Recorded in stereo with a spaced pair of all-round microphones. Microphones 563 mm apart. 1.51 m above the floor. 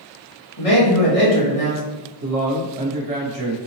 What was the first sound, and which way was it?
A man speaking, 75° left (ahead or behind).